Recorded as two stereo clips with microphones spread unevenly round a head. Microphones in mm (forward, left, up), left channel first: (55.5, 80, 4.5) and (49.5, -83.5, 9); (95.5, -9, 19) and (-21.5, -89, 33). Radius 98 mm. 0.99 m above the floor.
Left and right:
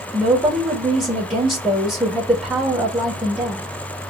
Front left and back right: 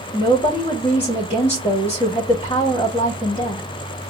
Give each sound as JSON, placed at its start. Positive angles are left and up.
{"t": 0.1, "sound": "a woman speaking", "azimuth_deg": -15, "distance_m": 2.0}